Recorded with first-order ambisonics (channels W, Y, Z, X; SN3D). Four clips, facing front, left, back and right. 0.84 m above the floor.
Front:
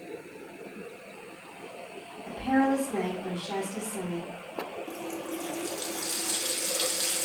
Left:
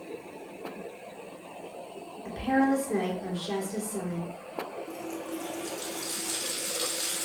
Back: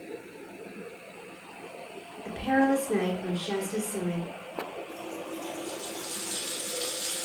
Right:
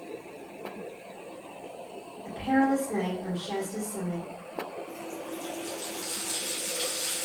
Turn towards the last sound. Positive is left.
turn(degrees=15)